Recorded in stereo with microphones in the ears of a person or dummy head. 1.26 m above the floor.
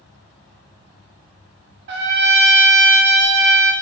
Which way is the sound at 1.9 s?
60° right (ahead or behind).